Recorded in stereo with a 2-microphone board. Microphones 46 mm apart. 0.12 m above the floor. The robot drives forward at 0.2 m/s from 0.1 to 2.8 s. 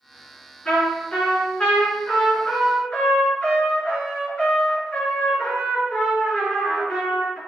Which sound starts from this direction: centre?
A trumpet, at 0.7 s.